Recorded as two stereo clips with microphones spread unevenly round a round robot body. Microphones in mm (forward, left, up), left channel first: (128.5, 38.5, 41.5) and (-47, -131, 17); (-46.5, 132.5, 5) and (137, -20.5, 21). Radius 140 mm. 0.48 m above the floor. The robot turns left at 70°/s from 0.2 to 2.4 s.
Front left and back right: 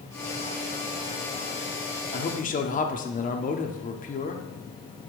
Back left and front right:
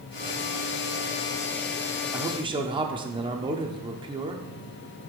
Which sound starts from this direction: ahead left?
A man speaking, at 2.1 s.